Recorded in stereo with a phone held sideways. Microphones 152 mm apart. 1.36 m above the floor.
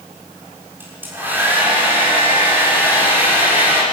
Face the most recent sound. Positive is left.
turn(degrees=-15)  # may be behind; listen again after turning